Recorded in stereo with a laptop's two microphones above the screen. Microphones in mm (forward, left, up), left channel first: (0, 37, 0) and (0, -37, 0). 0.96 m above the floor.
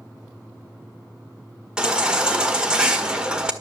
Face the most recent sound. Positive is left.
turn(degrees=-10)  # may be behind; listen again after turning